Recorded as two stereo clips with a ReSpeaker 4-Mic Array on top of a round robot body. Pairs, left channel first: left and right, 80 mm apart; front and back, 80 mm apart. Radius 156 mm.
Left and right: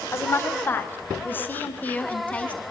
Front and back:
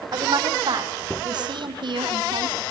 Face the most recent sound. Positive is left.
turn(degrees=165)